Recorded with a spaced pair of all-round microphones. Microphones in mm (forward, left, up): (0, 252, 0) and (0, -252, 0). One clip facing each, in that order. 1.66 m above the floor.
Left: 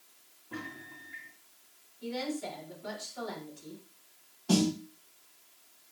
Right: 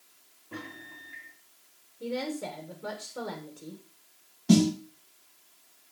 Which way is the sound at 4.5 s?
40° right (ahead or behind).